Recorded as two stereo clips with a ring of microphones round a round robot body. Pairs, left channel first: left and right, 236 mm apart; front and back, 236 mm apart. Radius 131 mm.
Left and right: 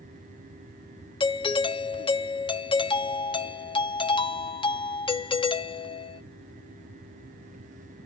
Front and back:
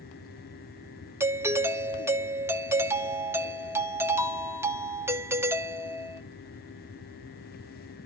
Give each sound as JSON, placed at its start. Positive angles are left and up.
{"t": 1.2, "sound": "a doorbell", "azimuth_deg": 115, "distance_m": 0.8}